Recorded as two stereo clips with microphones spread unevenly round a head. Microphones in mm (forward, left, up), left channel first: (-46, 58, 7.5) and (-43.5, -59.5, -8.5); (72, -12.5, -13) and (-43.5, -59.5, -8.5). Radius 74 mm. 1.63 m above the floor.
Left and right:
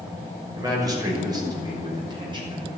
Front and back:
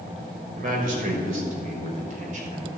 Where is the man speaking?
150° right, 6.5 m; by 2.7 s 135° right, 6 m.